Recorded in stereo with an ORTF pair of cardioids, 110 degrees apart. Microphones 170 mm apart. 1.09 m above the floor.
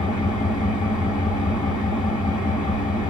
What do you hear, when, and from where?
0.0 s an engine running: 55° left, 1.4 m